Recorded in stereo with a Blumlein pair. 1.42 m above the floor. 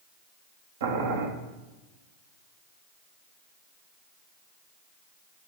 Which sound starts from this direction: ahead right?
Boiling, at 0.8 s.